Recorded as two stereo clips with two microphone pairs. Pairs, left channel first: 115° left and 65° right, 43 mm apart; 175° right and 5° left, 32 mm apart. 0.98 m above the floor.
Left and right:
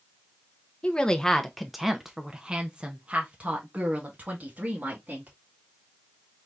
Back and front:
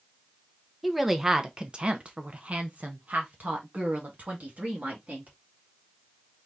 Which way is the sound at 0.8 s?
85° left.